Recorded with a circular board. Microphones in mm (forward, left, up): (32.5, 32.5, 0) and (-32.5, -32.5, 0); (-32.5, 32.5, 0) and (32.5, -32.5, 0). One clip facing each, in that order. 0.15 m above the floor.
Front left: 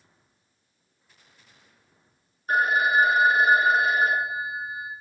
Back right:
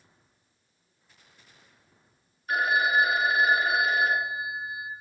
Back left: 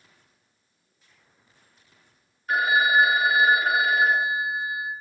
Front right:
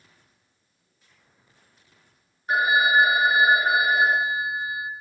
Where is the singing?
I don't hear singing.